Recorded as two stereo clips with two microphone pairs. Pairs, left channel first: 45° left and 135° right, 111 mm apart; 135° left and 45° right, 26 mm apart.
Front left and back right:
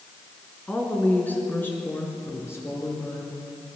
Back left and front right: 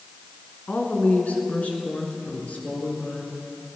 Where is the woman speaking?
120° left, 2.5 m; by 3.3 s 110° left, 3.5 m.